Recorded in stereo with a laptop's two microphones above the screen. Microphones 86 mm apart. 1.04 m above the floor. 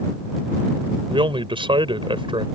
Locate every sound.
1.1 s a man speaking: 80° right